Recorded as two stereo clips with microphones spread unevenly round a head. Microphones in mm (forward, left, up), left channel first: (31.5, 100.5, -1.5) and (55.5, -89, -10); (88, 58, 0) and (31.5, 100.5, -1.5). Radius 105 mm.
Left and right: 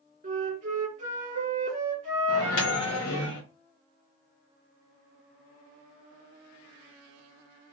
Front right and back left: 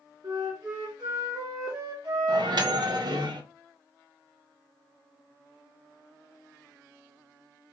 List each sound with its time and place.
0.2 s a flute: 145° right, 0.6 m
2.3 s a microwave: 130° left, 0.6 m